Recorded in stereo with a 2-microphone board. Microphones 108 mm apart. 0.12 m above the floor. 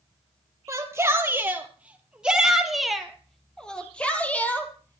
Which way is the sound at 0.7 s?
25° right (ahead or behind).